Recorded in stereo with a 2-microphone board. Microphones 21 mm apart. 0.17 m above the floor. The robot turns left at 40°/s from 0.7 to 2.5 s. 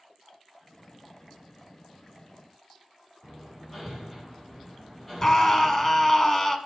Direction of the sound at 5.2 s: 25° left (ahead or behind).